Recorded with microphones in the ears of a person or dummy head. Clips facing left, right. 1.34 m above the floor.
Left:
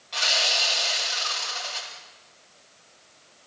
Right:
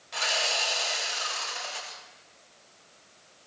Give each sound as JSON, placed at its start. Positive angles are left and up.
{"t": 0.1, "sound": "sawing", "side_deg": -20, "distance_m": 7.0}